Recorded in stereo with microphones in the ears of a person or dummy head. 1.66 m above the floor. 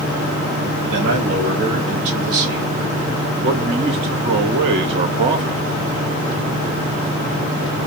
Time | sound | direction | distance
0.9 | a man speaking | 75° right (ahead or behind) | 2 m
3.4 | a man speaking | 25° right (ahead or behind) | 0.6 m